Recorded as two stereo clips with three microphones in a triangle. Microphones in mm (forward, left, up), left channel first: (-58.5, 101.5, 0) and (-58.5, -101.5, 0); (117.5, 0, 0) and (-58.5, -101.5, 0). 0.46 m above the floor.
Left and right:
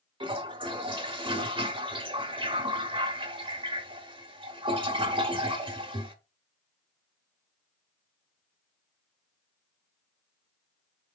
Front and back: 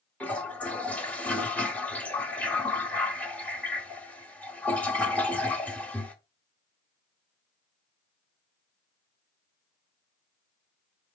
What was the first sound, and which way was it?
A toilet flushing, 50° right.